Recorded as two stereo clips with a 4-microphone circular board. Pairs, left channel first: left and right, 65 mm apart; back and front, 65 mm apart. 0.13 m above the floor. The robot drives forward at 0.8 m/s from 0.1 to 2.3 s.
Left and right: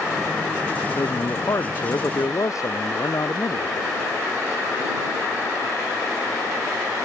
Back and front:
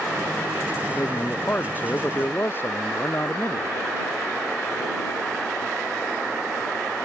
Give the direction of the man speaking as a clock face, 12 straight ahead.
8 o'clock.